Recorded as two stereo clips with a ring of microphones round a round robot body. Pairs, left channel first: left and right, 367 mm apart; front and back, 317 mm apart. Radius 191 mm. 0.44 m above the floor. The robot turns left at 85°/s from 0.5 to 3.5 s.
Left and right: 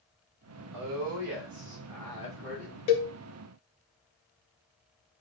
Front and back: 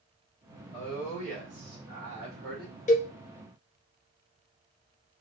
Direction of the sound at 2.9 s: 70° left.